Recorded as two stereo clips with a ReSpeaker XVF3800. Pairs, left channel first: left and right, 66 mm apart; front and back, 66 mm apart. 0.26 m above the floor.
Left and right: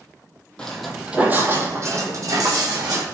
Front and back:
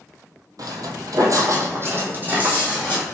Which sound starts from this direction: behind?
Footsteps, at 0.6 s.